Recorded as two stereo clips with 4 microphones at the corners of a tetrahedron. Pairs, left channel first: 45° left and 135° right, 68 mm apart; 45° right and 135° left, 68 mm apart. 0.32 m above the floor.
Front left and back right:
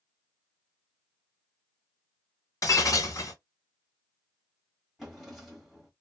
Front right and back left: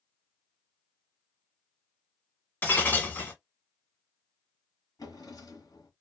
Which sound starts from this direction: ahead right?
A drawer, at 5.0 s.